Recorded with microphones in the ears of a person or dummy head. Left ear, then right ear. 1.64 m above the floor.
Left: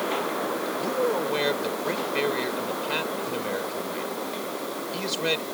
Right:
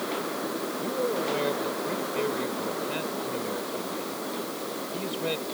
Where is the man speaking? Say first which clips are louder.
Left 3 dB; 65° left (ahead or behind).